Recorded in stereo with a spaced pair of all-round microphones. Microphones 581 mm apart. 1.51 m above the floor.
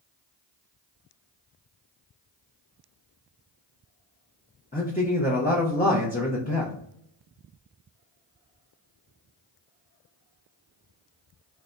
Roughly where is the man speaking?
Centre.